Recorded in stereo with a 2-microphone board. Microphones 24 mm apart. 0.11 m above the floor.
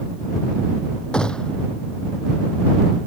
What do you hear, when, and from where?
1.1 s a gunshot: 35° left (ahead or behind)